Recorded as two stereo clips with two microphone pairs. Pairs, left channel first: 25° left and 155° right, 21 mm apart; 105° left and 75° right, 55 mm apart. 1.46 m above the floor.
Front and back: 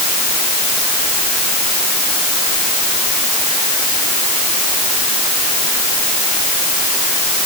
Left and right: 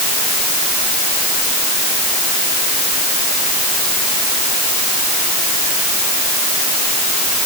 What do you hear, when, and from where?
Only background noise.